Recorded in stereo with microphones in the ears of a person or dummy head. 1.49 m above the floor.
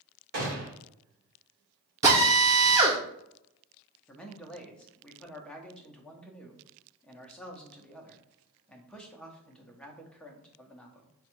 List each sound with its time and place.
0.3 s a gunshot: 60° right (ahead or behind), 1.7 m
2.0 s a drill: 20° right (ahead or behind), 0.8 m
4.1 s a man speaking: 5° left (ahead or behind), 0.6 m